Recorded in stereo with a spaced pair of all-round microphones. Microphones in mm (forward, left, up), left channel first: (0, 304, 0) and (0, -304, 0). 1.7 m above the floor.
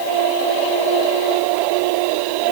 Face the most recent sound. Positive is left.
No sound to turn to.